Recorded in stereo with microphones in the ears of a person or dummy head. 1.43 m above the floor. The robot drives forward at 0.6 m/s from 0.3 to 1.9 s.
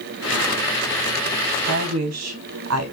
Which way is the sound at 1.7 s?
75° right (ahead or behind).